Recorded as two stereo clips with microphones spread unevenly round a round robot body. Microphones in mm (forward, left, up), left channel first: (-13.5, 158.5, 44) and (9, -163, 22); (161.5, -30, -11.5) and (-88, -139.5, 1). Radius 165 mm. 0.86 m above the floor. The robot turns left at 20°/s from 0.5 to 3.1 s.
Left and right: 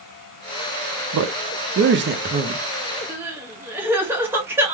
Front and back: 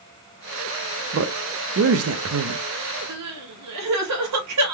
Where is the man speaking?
115° right, 0.6 m; by 2.6 s 145° right, 0.6 m.